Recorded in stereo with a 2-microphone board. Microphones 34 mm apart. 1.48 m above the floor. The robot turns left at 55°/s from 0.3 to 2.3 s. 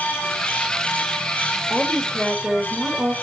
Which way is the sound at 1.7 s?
10° right.